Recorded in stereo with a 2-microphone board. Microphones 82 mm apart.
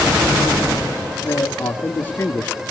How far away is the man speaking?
About 1.9 m.